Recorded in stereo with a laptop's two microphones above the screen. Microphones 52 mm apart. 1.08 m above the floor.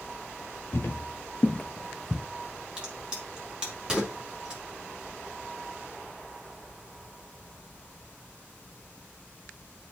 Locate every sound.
0.7 s footsteps: 50° left (ahead or behind), 1.7 m; by 2.2 s 10° right (ahead or behind), 1.1 m
2.8 s a crack: 20° right (ahead or behind), 2 m